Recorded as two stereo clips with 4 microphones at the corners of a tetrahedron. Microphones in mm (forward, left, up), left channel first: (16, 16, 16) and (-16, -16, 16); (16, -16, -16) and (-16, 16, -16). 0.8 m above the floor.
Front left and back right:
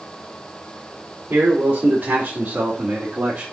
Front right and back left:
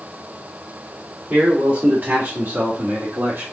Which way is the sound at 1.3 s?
170° right.